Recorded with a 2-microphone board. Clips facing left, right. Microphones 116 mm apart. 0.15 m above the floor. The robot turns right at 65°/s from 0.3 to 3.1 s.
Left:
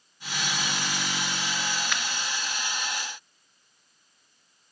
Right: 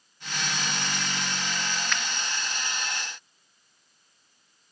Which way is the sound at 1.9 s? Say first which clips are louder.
Even; 10° left (ahead or behind).